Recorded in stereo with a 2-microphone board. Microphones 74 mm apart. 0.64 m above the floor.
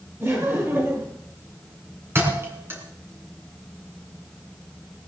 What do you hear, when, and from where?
0.2 s laughter: 35° right (ahead or behind), 8.5 m
2.1 s a thud: 35° right (ahead or behind), 4 m